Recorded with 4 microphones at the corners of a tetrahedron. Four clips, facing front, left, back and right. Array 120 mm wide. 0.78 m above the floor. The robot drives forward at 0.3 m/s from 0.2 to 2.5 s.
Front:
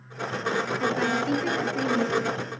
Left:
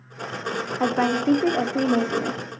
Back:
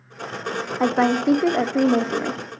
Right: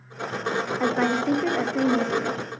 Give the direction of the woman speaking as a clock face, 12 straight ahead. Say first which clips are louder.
Left 3 dB, back 10 dB; 7 o'clock.